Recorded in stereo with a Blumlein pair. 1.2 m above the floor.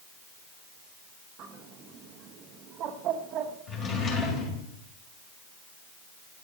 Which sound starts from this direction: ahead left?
A drawer, at 3.7 s.